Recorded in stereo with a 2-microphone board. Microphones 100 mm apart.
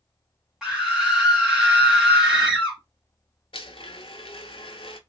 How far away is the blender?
About 0.5 m.